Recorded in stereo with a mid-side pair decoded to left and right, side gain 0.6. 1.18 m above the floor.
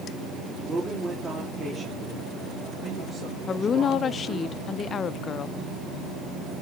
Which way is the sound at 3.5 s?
40° left.